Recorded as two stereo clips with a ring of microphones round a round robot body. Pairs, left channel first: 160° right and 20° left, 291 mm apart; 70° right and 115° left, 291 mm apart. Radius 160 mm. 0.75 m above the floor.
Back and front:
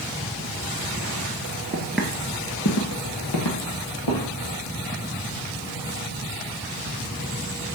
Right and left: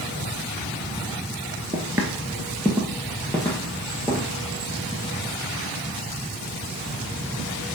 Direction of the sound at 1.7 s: 50° left.